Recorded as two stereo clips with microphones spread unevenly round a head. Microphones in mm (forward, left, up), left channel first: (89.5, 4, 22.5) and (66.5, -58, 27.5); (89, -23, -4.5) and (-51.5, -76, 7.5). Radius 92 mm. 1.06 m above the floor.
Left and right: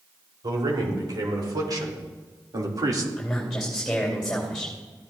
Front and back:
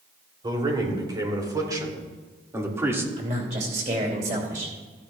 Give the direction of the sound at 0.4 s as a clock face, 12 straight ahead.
3 o'clock.